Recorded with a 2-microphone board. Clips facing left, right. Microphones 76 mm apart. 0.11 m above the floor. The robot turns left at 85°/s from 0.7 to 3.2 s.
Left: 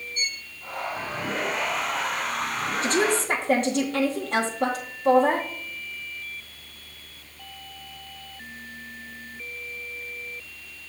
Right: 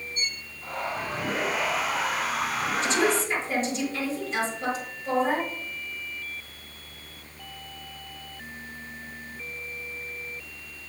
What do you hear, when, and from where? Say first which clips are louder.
0.1 s a violin: left 2 dB; 55° left (ahead or behind), 3.5 m
2.8 s a woman speaking: left 2 dB; 125° left, 2.5 m; by 5.5 s 95° left, 2.5 m